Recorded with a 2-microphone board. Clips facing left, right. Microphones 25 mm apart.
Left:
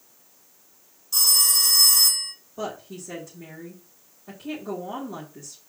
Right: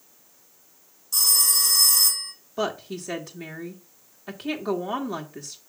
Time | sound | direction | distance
1.1 | a phone ringing | 5° left (ahead or behind) | 1.7 m
2.6 | a woman speaking | 65° right (ahead or behind) | 1.3 m